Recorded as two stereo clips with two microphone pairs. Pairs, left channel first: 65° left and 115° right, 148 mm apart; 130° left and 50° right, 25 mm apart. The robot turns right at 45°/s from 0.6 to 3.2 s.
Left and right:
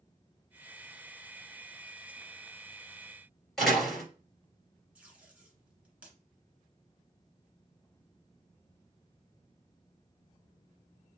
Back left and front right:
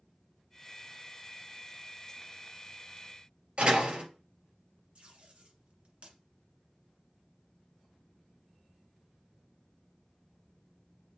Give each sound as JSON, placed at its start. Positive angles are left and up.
{"t": 3.6, "sound": "a door slam", "azimuth_deg": -20, "distance_m": 3.0}
{"t": 5.0, "sound": "tape being pulled", "azimuth_deg": -35, "distance_m": 1.7}